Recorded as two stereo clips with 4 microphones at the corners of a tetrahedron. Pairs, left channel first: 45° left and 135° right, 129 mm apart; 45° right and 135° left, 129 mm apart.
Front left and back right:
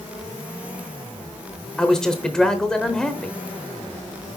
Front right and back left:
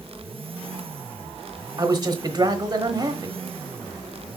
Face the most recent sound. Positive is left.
turn(degrees=125)